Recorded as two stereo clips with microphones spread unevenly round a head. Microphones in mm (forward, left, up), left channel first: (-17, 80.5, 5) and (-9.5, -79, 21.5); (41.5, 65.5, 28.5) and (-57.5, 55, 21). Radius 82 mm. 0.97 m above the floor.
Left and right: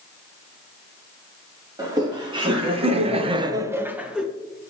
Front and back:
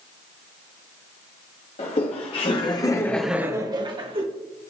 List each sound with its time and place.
1.8 s laughter: 20° right, 2.5 m; by 4.2 s 175° right, 1.7 m